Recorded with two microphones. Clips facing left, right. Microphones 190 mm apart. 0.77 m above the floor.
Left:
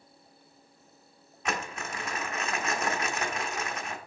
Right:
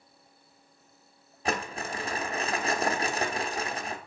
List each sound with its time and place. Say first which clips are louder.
1.4 s crumpling: right 3 dB; 35° right (ahead or behind), 0.8 m